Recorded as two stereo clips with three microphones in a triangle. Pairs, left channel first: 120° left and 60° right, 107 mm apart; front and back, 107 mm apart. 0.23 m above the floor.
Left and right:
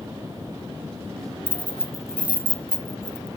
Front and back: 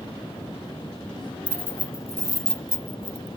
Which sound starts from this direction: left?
Keys jangling, at 1.5 s.